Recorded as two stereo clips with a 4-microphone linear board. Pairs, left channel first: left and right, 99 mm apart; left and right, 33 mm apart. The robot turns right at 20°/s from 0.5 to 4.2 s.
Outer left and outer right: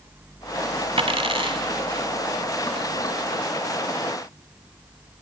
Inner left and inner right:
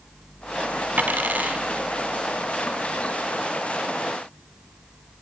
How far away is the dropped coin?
About 1.5 m.